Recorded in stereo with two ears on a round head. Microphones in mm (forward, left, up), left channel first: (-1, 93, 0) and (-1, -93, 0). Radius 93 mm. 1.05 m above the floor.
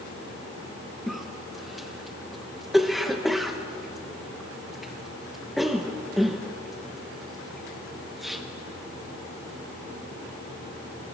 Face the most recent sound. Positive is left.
turn(degrees=0)  # may be behind; listen again after turning